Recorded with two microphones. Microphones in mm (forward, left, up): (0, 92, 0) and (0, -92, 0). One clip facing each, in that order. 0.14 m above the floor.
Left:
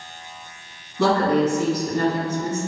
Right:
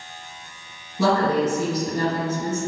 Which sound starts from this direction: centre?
A woman speaking, at 1.0 s.